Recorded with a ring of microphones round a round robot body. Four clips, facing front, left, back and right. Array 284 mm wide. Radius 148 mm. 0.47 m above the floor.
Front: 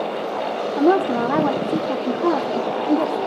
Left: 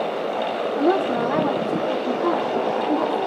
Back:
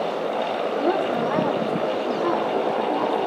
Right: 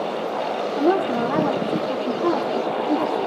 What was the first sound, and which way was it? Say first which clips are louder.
A woman speaking: even, front 7 dB; straight ahead.